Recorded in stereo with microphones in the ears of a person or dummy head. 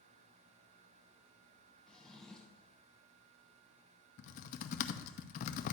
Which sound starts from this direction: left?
Typing on a keyboard, at 4.2 s.